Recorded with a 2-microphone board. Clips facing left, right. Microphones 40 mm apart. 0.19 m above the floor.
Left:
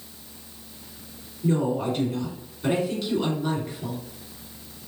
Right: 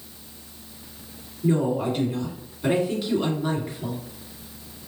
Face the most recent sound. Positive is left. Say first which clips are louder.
# right 1 dB
turn(degrees=-15)  # may be behind; listen again after turning